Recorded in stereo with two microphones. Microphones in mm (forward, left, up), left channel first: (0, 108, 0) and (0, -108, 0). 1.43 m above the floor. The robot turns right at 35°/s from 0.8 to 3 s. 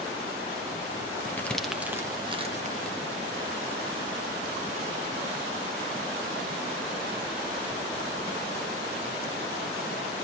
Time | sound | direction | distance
1.4 | crumpling | 10° left (ahead or behind) | 1.1 m